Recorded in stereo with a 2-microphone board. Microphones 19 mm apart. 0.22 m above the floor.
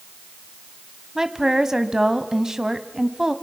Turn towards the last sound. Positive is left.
turn(degrees=-25)  # may be behind; listen again after turning